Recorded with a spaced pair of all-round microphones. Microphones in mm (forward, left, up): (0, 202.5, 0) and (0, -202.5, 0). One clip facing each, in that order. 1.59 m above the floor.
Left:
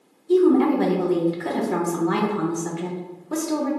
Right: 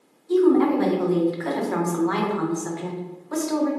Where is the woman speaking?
45° left (ahead or behind), 0.6 m.